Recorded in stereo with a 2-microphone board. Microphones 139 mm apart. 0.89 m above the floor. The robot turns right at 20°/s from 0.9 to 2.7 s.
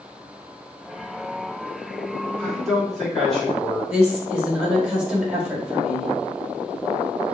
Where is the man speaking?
5° left (ahead or behind), 2 m; by 3.8 s centre (ahead or behind), 2 m.